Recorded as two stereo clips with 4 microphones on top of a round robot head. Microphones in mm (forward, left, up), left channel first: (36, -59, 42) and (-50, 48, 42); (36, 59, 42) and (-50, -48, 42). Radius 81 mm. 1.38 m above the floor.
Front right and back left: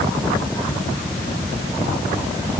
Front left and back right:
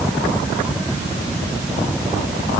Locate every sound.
Only background noise.